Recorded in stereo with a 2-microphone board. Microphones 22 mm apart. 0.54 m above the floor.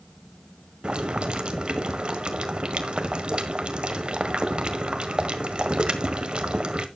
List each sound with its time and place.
0.8 s boiling: 50° right (ahead or behind), 1.4 m